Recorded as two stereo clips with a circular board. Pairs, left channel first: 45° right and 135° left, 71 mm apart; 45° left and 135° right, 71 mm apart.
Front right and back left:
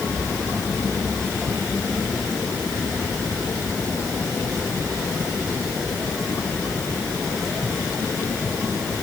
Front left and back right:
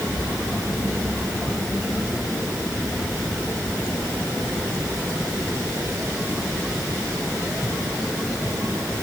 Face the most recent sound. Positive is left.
No sound to turn to.